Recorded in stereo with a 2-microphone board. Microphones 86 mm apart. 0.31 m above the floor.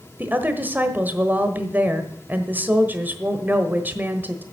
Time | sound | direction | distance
0.2 | a woman speaking | 25° right (ahead or behind) | 1.2 m